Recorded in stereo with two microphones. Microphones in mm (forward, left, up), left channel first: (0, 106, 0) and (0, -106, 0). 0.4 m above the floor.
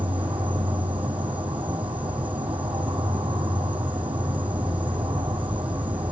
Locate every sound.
0.0 s an insect: 5° right (ahead or behind), 4 m